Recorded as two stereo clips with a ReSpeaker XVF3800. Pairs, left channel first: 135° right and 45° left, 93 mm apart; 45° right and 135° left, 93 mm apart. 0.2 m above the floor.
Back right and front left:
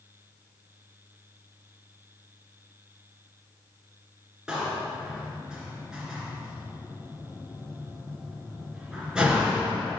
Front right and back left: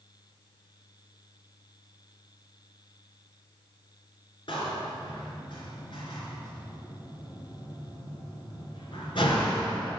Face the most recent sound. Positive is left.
turn(degrees=-35)